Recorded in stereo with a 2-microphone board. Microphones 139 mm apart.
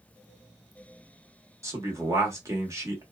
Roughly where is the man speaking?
Right.